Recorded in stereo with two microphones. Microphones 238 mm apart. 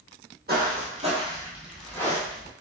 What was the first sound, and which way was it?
Footsteps, 45° right (ahead or behind).